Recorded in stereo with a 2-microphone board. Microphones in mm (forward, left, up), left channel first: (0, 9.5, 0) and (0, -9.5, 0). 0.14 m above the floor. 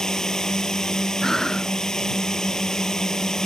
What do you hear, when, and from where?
0.0 s a drone: 35° left (ahead or behind)
1.2 s breathing: 30° left (ahead or behind)